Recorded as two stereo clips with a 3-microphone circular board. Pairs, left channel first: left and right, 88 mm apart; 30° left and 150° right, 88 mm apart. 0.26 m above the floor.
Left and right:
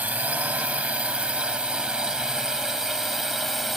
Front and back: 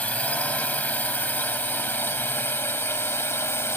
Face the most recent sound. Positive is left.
turn(degrees=0)